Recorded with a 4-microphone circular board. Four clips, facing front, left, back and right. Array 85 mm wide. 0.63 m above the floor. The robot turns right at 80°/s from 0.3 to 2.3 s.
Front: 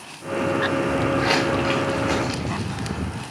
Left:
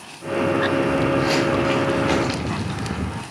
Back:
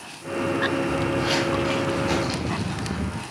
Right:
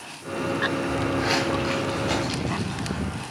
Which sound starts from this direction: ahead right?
Footsteps, at 0.9 s.